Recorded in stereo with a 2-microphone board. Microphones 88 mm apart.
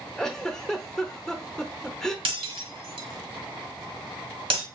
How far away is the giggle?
About 0.7 m.